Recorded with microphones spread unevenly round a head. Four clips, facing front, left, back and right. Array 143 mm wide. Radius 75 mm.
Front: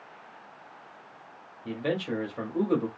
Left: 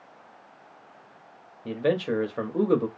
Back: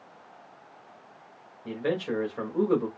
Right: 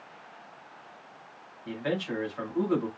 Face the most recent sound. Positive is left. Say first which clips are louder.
# left 6 dB, back 1 dB
turn(degrees=95)